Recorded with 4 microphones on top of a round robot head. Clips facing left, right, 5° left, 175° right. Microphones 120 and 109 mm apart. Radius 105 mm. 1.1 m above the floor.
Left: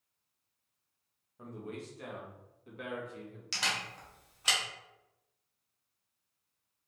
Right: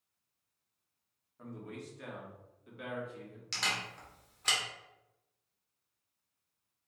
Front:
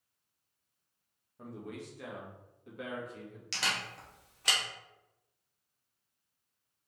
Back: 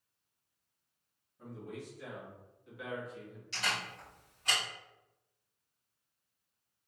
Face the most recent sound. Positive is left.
turn(degrees=10)